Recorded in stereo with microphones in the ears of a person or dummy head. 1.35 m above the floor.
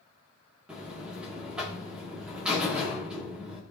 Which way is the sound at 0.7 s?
5° right (ahead or behind).